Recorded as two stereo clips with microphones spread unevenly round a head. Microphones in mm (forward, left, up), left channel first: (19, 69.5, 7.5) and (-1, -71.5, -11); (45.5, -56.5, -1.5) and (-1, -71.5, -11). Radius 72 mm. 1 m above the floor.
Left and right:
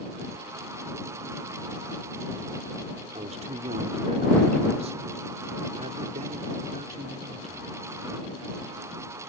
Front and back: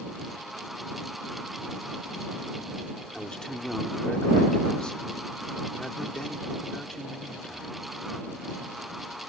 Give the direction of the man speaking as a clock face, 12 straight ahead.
2 o'clock.